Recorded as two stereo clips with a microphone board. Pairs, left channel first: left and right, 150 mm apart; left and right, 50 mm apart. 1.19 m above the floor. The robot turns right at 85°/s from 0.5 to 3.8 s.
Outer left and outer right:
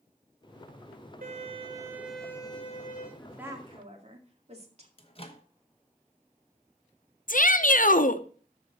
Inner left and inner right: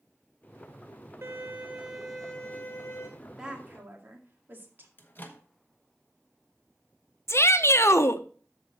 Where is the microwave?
40° left (ahead or behind), 1.0 m.